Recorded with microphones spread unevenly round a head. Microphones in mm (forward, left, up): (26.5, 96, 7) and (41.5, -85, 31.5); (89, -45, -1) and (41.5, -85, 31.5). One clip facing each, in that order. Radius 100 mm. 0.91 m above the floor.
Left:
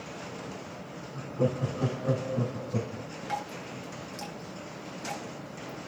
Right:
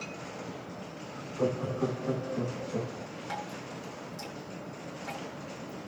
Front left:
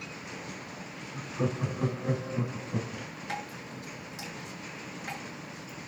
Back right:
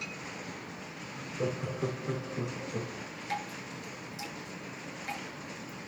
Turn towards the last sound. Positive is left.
turn(degrees=30)